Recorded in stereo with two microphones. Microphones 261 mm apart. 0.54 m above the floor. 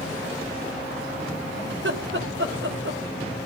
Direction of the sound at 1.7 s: 45° right (ahead or behind).